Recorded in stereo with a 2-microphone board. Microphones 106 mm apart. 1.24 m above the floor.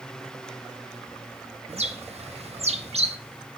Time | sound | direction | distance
1.7 | a bird | 85° right | 1.6 m